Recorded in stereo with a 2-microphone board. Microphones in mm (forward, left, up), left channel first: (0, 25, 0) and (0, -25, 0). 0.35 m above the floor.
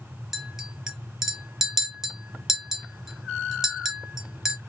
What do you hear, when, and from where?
0.3 s a clink: 10° right (ahead or behind), 1.0 m